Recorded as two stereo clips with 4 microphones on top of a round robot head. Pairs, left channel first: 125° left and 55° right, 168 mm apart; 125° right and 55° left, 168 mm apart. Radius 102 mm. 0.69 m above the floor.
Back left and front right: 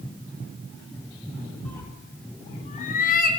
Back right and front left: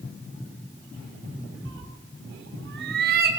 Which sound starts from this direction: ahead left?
A cat meowing, at 1.6 s.